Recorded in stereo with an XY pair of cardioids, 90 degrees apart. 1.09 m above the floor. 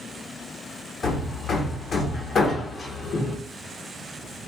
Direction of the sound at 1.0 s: 60° left.